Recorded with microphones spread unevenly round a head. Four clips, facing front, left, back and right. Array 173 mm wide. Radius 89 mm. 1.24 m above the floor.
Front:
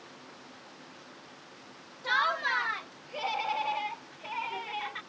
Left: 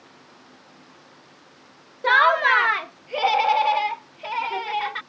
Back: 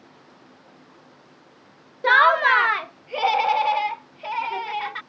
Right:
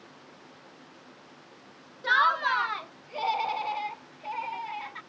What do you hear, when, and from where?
2.0 s laughter: 145° left; by 5.0 s 95° left